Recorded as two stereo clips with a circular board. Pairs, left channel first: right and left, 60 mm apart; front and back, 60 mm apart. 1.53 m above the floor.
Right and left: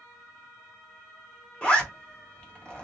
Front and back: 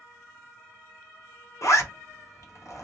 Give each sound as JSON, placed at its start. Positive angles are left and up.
{"t": 1.6, "sound": "a zipper", "azimuth_deg": -20, "distance_m": 0.9}